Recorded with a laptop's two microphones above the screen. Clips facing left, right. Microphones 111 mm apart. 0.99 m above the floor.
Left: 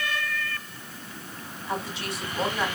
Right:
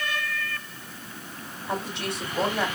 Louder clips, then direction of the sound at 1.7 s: Right 1 dB; 80° right.